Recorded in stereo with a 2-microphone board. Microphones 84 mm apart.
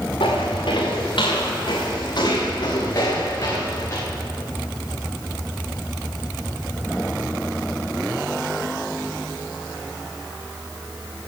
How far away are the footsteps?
About 4 m.